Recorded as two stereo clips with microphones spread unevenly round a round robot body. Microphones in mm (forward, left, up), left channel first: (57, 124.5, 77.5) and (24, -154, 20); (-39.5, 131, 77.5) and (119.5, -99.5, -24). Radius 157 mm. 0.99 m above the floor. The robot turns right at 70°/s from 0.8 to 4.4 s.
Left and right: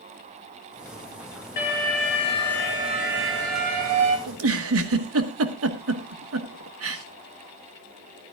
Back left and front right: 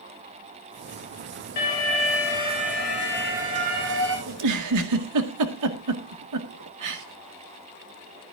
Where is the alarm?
105° left, 4 m; by 4.2 s 75° right, 4 m.